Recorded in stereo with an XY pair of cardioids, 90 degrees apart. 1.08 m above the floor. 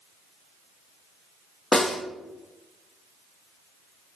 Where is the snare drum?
45° left, 1.2 m.